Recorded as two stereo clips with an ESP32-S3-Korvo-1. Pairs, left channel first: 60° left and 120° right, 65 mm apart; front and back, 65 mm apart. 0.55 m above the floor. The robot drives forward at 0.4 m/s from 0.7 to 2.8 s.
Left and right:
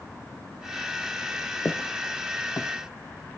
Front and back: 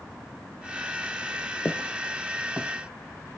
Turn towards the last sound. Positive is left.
turn(degrees=105)